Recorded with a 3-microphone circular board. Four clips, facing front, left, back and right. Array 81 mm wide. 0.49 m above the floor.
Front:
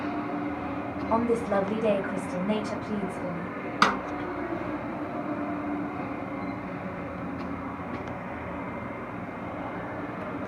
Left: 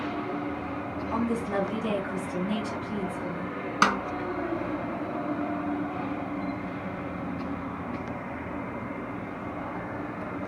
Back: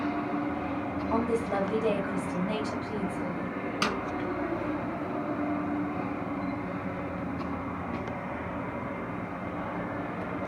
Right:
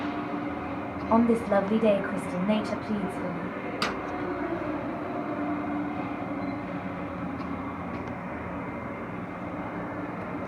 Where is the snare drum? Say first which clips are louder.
Left 9 dB, front 8 dB; 40° left, 2.0 m.